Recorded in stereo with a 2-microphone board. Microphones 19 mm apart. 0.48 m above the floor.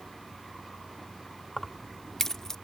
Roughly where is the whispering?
No whispering in this recording.